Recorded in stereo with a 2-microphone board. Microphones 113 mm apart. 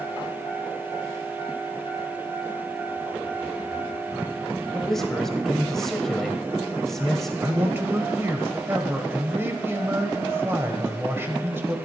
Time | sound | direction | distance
4.7 | a man speaking | 5° left (ahead or behind) | 1.0 m
7.4 | a man speaking | 20° right (ahead or behind) | 1.1 m